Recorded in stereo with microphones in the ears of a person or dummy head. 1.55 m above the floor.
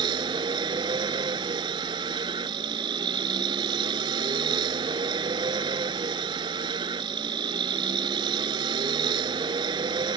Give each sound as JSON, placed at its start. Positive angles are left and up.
{"t": 0.0, "sound": "a vehicle", "side_deg": -25}